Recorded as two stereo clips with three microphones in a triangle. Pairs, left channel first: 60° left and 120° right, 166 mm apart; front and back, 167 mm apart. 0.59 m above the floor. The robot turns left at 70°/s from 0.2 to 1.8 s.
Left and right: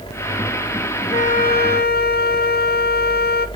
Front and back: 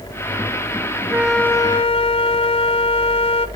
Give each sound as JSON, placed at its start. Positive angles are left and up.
{"t": 1.1, "sound": "a flute", "azimuth_deg": 105, "distance_m": 0.7}